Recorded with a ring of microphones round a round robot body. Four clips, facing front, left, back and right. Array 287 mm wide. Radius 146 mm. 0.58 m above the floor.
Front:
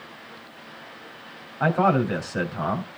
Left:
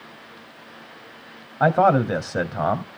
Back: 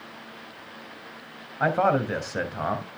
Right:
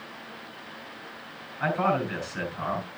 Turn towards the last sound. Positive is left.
turn(degrees=95)